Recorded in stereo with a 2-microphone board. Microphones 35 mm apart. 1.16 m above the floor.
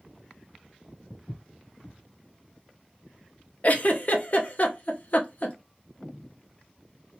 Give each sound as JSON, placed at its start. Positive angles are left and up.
{"t": 1.1, "sound": "footsteps", "side_deg": 30, "distance_m": 1.9}
{"t": 3.6, "sound": "a giggle", "side_deg": 50, "distance_m": 0.7}